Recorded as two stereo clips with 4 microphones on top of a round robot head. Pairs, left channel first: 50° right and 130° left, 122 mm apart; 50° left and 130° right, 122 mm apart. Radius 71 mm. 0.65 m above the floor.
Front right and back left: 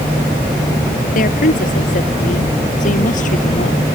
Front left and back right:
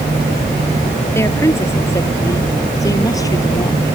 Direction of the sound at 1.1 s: 25° right.